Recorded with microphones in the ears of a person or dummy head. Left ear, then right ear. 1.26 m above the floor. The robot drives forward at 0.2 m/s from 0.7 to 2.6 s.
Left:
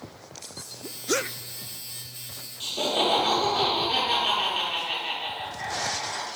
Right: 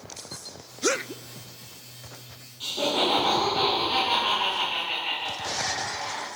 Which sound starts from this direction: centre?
Laughter, at 2.6 s.